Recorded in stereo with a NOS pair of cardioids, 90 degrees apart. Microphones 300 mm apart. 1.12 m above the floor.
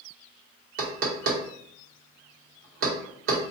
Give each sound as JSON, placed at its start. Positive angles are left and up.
{"t": 0.8, "sound": "knocking", "azimuth_deg": -50, "distance_m": 0.8}